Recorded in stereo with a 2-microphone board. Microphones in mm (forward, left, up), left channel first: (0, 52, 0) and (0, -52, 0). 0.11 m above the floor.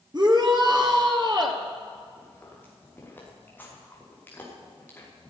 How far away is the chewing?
About 6.5 m.